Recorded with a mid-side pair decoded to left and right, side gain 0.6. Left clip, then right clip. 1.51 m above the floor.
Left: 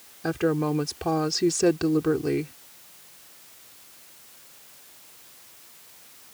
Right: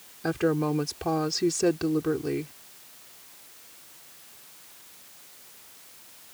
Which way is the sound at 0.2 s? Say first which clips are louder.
Left 1 dB; straight ahead.